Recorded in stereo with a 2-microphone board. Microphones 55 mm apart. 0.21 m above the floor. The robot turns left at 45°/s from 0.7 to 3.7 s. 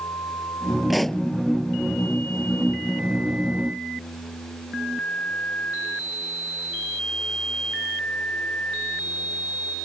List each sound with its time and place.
0.9 s a pop: 5° right (ahead or behind); by 1.2 s 10° left (ahead or behind)